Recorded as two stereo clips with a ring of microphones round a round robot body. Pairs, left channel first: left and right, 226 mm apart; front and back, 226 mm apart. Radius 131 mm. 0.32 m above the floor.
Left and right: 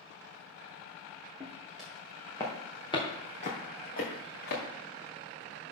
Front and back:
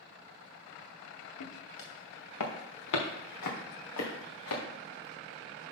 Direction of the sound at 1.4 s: 5° right.